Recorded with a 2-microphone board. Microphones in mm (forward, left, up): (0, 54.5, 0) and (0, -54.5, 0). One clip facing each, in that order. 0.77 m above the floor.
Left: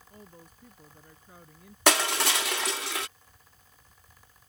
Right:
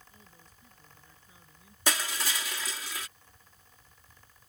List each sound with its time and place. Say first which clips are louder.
0.1 s a woman speaking: left 8 dB; 60° left (ahead or behind)
1.9 s crushing: left 8 dB; 75° left (ahead or behind)